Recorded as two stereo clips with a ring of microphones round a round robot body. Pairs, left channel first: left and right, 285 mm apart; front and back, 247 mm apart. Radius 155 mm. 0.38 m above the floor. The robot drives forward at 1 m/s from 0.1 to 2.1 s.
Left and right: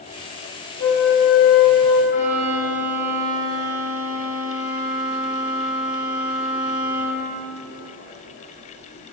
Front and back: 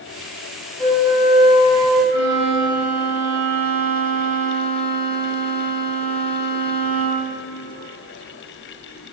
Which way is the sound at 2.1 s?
170° right.